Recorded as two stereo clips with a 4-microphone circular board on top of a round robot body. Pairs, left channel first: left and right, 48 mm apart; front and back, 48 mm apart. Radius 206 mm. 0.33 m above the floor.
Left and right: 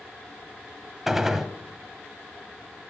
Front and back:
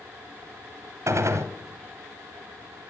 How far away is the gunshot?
About 1.1 m.